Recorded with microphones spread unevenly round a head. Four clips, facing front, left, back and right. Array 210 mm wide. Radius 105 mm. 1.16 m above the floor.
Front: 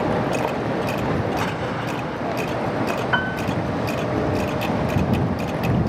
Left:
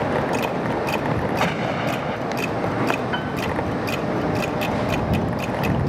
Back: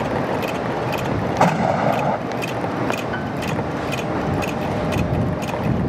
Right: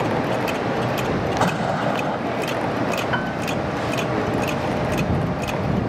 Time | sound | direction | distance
1.4 | an explosion | 170° right | ?
3.1 | a piano | 25° right | ?